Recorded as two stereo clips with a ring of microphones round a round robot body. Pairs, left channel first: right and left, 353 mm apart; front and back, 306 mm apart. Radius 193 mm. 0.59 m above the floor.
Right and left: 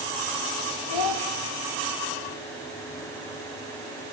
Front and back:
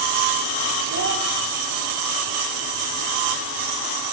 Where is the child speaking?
115° right, 1.7 m.